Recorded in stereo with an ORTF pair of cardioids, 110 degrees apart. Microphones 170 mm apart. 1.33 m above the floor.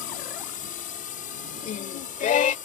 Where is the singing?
55° left.